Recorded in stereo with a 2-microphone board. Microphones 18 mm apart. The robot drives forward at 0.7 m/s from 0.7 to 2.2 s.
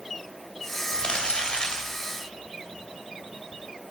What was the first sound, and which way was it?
Crumpling, 85° left.